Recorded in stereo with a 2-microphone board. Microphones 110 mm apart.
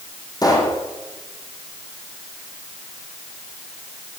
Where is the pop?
35° left (ahead or behind), 7.5 m.